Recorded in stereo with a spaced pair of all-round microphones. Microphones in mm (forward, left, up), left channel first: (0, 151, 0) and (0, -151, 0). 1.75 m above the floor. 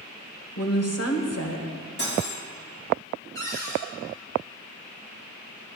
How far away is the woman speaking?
About 1.2 m.